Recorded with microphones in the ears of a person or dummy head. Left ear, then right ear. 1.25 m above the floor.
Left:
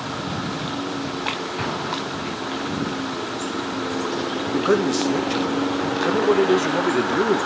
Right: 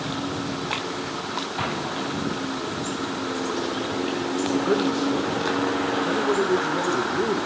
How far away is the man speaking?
About 1.5 m.